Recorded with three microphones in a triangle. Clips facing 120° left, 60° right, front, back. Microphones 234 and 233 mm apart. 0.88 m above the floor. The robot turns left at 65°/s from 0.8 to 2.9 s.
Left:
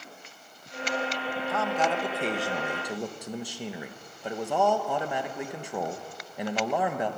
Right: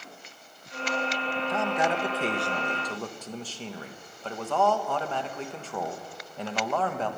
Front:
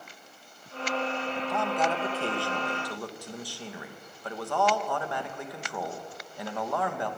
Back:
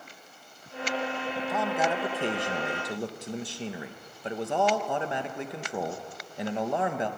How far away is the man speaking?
About 0.9 m.